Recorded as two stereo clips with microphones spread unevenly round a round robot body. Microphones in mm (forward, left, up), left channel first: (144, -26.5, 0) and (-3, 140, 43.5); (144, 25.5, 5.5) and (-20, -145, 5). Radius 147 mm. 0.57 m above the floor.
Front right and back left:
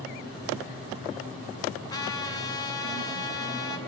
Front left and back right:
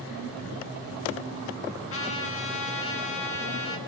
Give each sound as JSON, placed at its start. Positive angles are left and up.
{"t": 1.9, "sound": "a trumpet", "azimuth_deg": 25, "distance_m": 7.0}